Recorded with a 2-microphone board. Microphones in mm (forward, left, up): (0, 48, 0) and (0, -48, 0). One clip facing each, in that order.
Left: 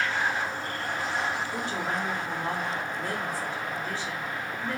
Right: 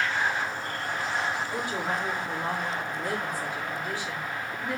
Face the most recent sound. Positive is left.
turn(degrees=-15)  # may be behind; listen again after turning